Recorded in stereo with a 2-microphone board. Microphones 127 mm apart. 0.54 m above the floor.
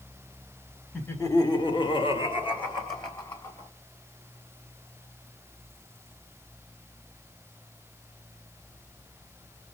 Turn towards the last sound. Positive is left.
turn(degrees=30)  # may be behind; listen again after turning